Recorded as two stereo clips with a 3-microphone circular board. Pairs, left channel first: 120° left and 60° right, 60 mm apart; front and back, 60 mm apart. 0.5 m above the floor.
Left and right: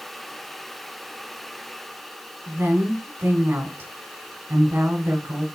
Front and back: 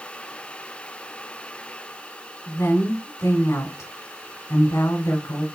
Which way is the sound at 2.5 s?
10° right.